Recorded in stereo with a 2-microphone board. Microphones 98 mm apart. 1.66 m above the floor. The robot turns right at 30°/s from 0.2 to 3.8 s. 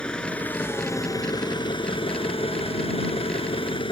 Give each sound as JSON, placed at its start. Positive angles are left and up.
{"t": 0.0, "sound": "an engine running", "azimuth_deg": 10}